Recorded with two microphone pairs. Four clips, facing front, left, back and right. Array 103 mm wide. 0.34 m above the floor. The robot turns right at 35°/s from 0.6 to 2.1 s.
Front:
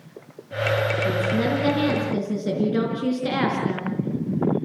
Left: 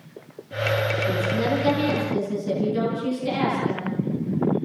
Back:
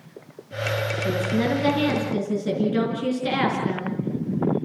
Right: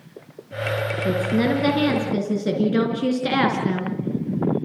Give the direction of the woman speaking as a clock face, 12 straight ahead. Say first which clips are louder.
Right 7 dB, front 1 dB; 3 o'clock.